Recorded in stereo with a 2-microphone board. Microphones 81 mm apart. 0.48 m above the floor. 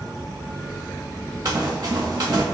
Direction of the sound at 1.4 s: 45° right (ahead or behind).